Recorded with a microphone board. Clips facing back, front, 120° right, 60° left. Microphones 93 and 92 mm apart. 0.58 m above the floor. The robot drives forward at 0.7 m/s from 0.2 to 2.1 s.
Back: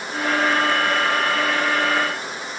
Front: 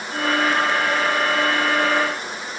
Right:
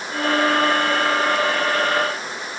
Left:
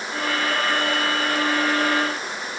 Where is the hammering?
No hammering in this recording.